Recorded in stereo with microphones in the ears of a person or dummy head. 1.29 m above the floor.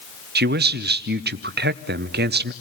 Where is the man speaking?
55° right (ahead or behind), 0.9 m.